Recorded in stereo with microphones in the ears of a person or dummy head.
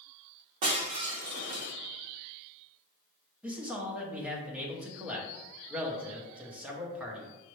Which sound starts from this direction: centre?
A man speaking, at 3.4 s.